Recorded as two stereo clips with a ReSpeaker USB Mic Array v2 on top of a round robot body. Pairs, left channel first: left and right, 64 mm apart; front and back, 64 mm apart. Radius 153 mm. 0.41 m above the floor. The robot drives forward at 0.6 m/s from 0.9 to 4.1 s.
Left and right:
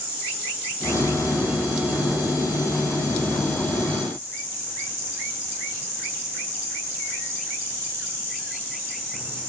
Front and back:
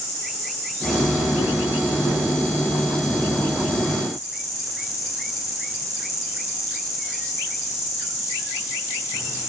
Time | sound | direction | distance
0.0 | an insect | 25° right | 8 m